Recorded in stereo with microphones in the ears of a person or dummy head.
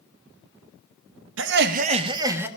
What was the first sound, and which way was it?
Laughter, 75° right (ahead or behind).